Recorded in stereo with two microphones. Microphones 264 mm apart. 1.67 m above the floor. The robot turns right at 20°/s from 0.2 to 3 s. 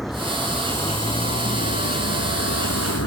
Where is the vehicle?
Centre (ahead or behind); by 3.1 s 60° left (ahead or behind).